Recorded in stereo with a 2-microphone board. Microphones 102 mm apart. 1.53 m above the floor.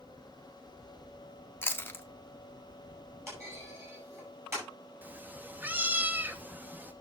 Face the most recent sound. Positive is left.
turn(degrees=-15)  # may be behind; listen again after turning